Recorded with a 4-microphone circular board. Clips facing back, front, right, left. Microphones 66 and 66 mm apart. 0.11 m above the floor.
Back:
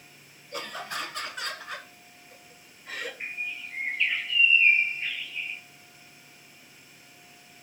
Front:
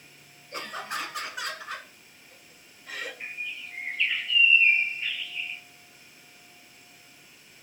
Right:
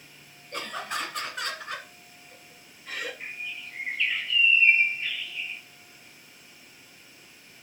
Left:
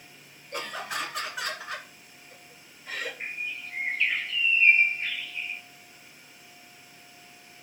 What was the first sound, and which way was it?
Laughter, 15° left.